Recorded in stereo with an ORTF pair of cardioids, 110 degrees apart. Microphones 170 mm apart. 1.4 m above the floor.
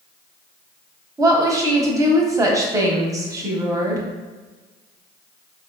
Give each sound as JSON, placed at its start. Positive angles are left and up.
{"t": 1.2, "sound": "a woman speaking", "azimuth_deg": -20, "distance_m": 0.7}